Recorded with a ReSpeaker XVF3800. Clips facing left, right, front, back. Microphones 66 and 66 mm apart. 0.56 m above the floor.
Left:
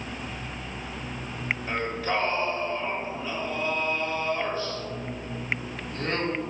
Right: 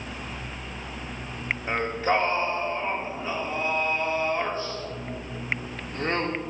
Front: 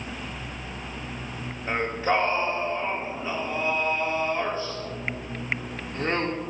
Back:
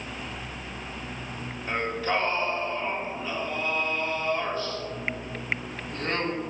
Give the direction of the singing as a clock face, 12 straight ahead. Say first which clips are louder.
Right 5 dB, front 3 dB; 2 o'clock.